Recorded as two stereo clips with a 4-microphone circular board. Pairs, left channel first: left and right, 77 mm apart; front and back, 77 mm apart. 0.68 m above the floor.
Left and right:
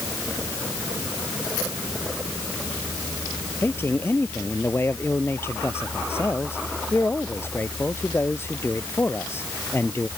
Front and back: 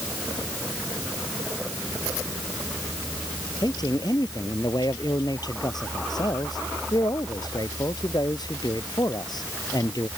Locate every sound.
3.6 s a man speaking: 30° left